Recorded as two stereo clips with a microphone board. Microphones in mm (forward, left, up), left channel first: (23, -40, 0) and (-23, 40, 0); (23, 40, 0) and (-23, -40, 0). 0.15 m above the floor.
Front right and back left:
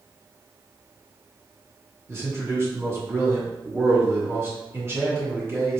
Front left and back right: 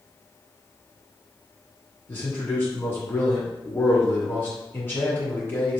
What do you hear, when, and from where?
2.1 s a man speaking: 95° left, 1.8 m